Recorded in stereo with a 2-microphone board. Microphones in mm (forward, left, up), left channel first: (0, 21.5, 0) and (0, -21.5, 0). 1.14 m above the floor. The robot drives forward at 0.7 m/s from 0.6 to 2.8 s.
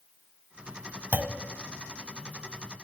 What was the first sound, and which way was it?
A clunk, 45° right (ahead or behind).